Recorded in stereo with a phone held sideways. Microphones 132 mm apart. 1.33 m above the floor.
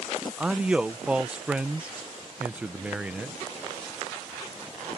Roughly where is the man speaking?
Centre.